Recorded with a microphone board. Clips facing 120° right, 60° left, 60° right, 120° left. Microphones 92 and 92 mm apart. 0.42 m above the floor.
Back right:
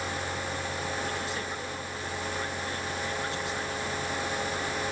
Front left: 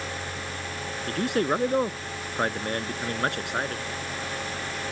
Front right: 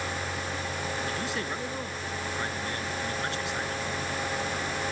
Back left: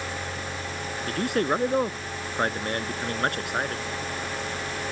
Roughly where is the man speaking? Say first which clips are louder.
Front left 9 dB, back left 7 dB; left.